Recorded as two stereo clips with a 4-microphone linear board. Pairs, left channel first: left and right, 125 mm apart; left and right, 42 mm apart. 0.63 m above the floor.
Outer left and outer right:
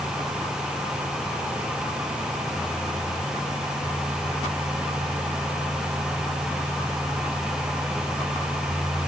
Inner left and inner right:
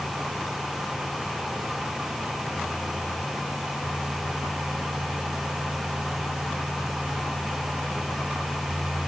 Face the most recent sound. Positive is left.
No sound to turn to.